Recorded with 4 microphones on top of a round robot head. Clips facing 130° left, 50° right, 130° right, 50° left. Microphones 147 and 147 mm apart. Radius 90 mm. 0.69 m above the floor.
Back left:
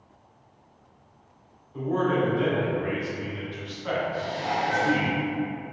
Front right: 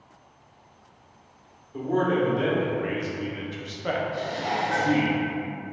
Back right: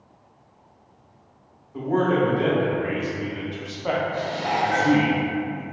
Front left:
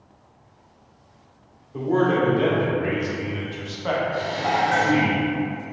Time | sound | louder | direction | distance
1.7 | a man speaking | front right 1 dB, front left 1 dB | 15° right | 1.8 m
4.1 | dishes clattering | even, front left 2 dB | 5° left | 1.8 m